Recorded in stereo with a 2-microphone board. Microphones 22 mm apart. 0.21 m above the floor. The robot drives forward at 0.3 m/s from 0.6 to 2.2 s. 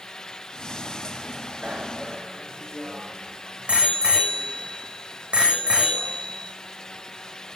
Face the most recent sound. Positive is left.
turn(degrees=-50)  # may be behind; listen again after turning